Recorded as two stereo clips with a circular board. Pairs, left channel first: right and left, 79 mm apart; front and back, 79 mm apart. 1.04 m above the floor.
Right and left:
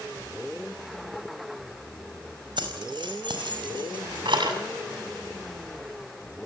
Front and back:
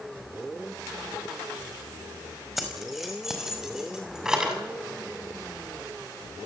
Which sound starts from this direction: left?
Keys jangling, at 2.6 s.